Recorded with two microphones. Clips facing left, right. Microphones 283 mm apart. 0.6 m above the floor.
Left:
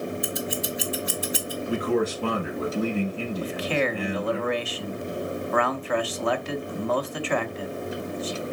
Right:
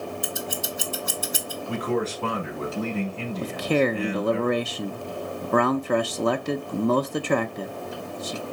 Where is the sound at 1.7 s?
10° left (ahead or behind), 5.5 m.